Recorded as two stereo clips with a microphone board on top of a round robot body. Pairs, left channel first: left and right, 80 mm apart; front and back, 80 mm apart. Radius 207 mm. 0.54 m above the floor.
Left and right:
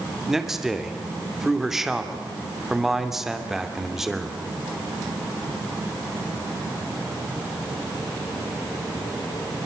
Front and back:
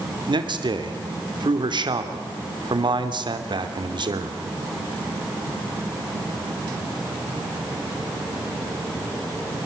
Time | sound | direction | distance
0.3 | a man speaking | 175° right | 2.5 m